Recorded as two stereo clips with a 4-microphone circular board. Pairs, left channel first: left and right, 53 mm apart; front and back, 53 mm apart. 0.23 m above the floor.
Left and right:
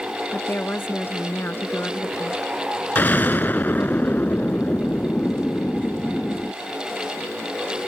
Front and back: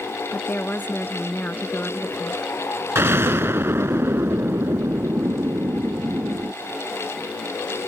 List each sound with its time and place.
0.3 s a woman speaking: 50° left
3.0 s an explosion: 140° left